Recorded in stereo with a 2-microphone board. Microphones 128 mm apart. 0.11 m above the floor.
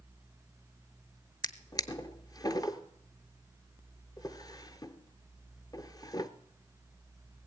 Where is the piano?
I don't hear a piano.